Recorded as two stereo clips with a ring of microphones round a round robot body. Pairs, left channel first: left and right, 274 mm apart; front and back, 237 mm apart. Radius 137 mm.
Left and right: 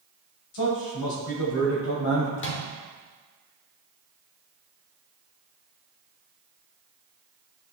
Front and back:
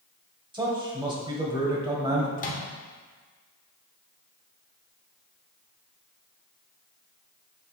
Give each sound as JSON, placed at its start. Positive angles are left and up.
{"t": 0.5, "sound": "a man speaking", "azimuth_deg": 110, "distance_m": 2.5}
{"t": 2.4, "sound": "a microwave", "azimuth_deg": 50, "distance_m": 1.1}